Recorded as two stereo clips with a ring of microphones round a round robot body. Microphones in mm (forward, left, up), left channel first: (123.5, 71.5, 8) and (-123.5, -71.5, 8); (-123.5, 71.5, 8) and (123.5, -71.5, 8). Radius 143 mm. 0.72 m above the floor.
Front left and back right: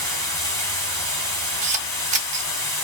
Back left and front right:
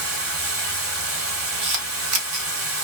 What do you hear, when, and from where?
0.0 s running water: 50° right, 1.5 m
1.6 s a camera shutter: 85° right, 0.7 m